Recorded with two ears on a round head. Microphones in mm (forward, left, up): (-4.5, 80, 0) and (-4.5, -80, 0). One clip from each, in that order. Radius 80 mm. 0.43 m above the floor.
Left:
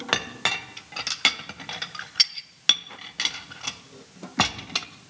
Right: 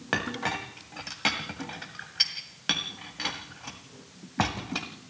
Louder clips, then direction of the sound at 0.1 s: Left 4 dB; 70° left (ahead or behind).